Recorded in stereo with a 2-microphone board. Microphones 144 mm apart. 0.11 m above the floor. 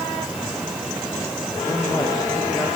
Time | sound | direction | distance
1.7 | a man speaking | 15° left (ahead or behind) | 4.5 m